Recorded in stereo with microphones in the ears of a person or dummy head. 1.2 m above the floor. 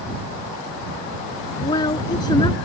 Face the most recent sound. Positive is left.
turn(degrees=25)  # may be behind; listen again after turning